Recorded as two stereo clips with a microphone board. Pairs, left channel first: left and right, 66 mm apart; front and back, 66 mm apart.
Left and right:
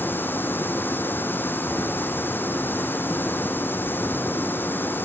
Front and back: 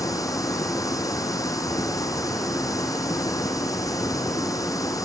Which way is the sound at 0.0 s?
30° left.